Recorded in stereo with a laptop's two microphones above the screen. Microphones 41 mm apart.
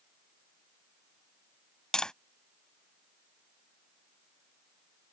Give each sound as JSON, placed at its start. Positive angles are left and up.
{"t": 1.9, "sound": "tapping", "side_deg": 15}